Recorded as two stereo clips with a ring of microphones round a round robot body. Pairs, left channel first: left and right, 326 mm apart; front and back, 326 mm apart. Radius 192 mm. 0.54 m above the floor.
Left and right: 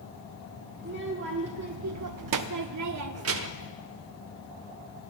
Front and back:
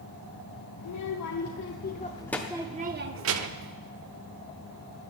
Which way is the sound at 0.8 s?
30° right.